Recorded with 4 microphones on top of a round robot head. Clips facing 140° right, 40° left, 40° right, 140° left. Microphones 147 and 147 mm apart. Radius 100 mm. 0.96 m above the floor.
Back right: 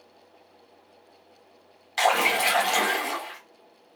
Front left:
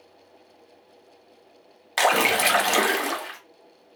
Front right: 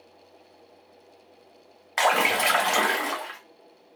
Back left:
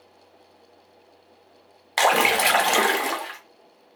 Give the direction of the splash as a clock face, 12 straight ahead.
9 o'clock.